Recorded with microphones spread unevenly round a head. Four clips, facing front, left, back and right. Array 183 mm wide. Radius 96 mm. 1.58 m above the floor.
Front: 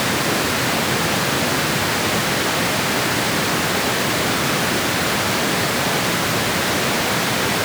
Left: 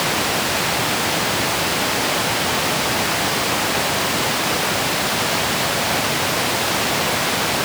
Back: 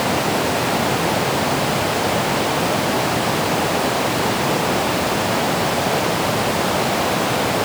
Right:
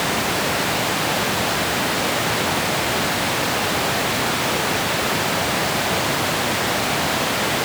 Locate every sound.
Only background noise.